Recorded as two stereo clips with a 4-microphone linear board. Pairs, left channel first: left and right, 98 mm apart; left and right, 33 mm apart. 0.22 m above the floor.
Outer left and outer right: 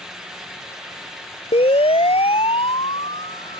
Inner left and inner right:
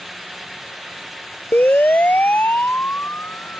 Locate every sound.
1.5 s a siren: 70° left (ahead or behind); by 3.6 s 75° left (ahead or behind)